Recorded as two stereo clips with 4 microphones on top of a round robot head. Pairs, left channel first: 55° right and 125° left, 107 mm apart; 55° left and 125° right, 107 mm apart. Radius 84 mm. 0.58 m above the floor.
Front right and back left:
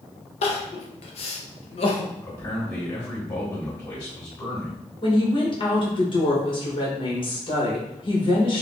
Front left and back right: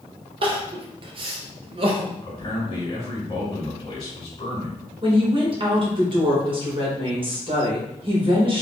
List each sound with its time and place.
0.4 s crying: 85° right, 0.7 m
2.2 s a man speaking: 5° left, 2 m
5.0 s a woman speaking: 90° right, 1.8 m